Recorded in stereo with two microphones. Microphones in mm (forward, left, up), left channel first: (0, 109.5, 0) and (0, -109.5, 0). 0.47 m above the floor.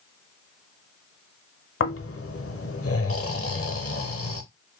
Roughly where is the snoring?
Left.